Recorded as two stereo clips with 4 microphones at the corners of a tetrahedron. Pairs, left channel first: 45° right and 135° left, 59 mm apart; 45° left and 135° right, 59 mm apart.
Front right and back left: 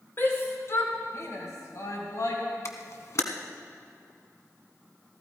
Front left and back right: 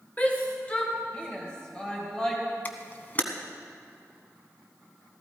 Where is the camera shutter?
10° right, 1.1 m.